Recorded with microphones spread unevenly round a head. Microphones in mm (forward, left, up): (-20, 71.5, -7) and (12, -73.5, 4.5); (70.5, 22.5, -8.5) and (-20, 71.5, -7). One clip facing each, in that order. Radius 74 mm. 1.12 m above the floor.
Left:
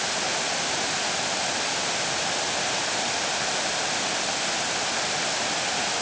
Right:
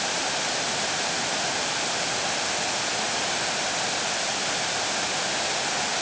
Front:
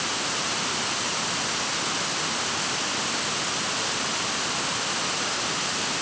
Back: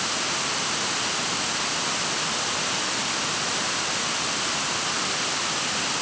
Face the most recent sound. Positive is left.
No sound to turn to.